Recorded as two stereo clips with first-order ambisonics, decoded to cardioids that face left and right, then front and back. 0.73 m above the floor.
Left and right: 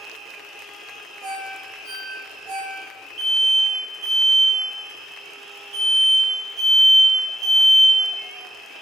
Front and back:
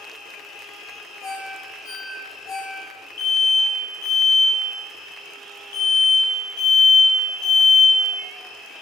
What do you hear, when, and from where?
1.2 s a ringtone: 45° right, 1.6 m
3.2 s an alarm: 10° right, 0.7 m